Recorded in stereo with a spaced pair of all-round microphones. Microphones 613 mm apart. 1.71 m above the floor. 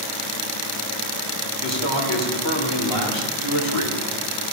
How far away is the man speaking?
About 2 m.